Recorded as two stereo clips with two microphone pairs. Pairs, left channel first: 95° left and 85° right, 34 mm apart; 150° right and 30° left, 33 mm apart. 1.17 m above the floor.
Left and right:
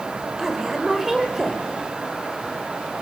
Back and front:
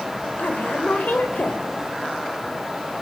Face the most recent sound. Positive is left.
turn(degrees=-165)